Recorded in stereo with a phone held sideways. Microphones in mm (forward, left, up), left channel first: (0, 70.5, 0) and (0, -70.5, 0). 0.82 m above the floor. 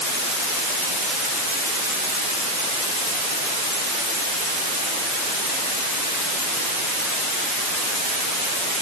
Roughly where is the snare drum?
I don't hear a snare drum.